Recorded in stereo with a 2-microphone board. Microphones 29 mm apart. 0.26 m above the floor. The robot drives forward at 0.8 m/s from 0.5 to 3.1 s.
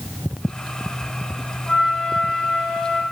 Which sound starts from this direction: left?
A flute, at 1.7 s.